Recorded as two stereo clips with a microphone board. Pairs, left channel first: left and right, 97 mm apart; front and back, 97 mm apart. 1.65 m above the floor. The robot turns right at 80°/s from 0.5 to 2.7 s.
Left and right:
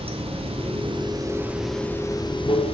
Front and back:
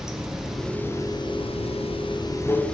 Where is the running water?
95° right, 0.8 m; by 2.8 s 80° left, 0.8 m.